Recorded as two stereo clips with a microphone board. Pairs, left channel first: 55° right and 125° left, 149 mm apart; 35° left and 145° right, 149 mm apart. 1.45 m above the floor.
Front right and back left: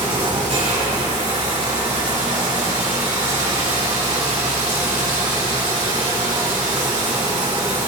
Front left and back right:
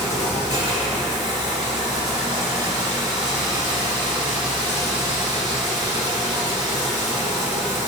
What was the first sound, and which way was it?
Running water, 160° left.